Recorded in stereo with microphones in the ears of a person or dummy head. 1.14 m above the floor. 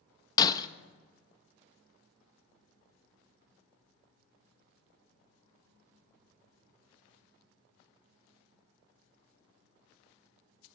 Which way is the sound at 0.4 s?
25° left (ahead or behind).